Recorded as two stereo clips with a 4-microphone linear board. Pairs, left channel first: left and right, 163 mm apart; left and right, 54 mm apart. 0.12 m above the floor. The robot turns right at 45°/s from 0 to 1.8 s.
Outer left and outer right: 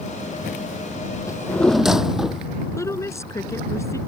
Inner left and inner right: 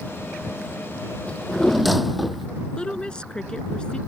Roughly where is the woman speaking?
Centre.